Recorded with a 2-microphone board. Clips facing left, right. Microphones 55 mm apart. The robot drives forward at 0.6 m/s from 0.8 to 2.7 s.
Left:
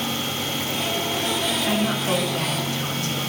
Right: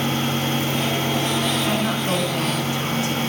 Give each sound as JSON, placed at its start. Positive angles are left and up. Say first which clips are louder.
{"t": 1.7, "sound": "a woman speaking", "louder": "right 1 dB", "side_deg": -30, "distance_m": 2.5}